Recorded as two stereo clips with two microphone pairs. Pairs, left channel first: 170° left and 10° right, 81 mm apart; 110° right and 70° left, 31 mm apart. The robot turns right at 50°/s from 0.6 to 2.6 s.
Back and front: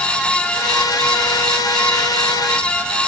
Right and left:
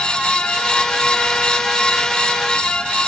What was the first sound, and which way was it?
Only background noise.